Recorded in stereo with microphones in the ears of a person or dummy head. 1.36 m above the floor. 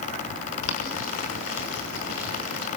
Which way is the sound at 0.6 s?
85° left.